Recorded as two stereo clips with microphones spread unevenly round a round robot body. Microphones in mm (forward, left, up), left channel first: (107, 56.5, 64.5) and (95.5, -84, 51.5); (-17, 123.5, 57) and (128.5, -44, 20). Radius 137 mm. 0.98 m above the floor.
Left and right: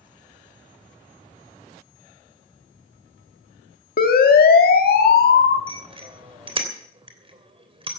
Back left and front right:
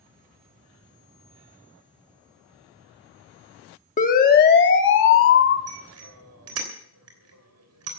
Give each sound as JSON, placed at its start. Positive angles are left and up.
{"t": 4.0, "sound": "a siren", "azimuth_deg": 75, "distance_m": 2.0}
{"t": 5.7, "sound": "a bicycle bell", "azimuth_deg": -45, "distance_m": 3.0}